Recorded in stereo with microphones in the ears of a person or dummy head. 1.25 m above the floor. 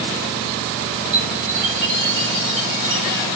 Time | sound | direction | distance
1.1 | a chime | 65° right (ahead or behind) | 3 m